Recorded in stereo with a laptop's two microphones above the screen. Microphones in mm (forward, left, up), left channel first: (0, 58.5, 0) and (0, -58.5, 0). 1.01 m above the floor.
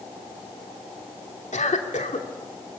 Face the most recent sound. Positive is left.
turn(degrees=80)